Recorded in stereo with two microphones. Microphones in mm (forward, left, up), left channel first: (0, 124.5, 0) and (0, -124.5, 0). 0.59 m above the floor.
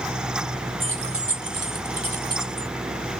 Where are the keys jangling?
50° right (ahead or behind), 1.0 m; by 2.7 s 60° right (ahead or behind), 1.2 m.